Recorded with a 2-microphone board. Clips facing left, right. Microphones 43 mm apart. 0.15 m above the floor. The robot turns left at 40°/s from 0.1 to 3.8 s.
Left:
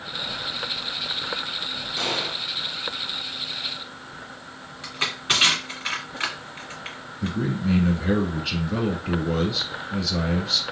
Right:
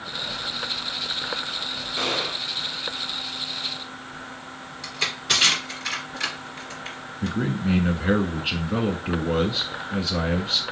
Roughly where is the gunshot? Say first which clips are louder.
Right 1 dB; centre.